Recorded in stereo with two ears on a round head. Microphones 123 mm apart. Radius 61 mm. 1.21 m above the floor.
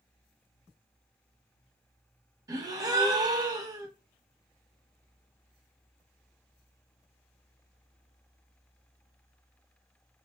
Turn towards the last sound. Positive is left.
turn(degrees=-25)  # may be behind; listen again after turning